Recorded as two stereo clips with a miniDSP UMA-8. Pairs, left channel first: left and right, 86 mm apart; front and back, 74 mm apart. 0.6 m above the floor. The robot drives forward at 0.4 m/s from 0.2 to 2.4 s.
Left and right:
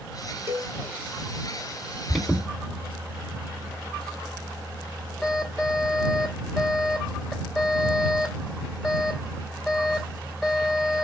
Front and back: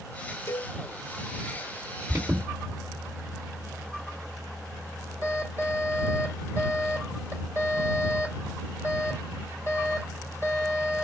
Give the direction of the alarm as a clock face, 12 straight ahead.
6 o'clock.